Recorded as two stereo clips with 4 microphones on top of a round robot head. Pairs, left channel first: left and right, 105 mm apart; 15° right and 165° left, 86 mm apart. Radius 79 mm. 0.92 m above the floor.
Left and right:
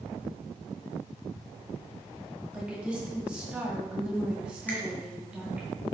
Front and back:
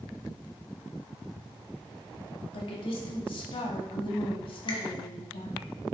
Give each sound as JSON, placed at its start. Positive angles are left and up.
{"t": 2.5, "sound": "a woman speaking", "azimuth_deg": -10, "distance_m": 1.7}
{"t": 4.7, "sound": "a finger snap", "azimuth_deg": 15, "distance_m": 1.7}